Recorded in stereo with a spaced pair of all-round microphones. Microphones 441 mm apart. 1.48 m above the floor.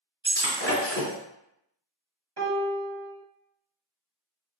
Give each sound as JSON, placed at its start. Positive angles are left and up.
{"t": 0.2, "sound": "breaking glass", "side_deg": -25, "distance_m": 1.4}
{"t": 2.4, "sound": "a piano", "side_deg": -65, "distance_m": 1.2}